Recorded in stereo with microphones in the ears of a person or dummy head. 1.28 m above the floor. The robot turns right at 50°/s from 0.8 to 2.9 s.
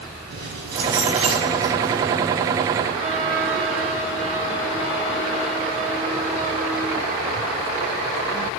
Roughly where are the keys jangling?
Ahead right.